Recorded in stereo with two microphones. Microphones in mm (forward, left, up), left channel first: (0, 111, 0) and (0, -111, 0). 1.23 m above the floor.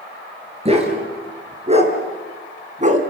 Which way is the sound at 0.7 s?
25° right (ahead or behind).